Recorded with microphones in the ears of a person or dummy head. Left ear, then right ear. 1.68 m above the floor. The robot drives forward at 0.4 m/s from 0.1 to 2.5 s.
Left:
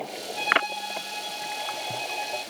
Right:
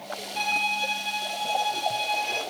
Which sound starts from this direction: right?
A violin, at 0.3 s.